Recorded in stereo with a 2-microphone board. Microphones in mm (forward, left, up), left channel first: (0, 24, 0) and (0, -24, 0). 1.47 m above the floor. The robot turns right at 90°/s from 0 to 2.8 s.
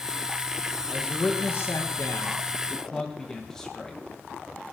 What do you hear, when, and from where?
0.9 s a man speaking: straight ahead, 1.7 m; by 4.0 s 170° left, 1.7 m